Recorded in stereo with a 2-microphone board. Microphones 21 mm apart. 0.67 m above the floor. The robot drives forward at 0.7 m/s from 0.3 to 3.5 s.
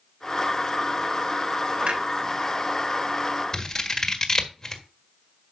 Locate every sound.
1.8 s a clunk: 70° right (ahead or behind), 3 m; by 2.0 s 75° right (ahead or behind), 3 m
3.5 s scissors: 25° left (ahead or behind), 1.5 m